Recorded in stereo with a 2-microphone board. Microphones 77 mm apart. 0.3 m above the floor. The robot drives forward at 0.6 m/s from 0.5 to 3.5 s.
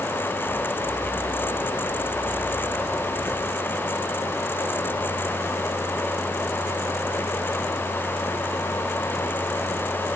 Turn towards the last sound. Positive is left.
No sound to turn to.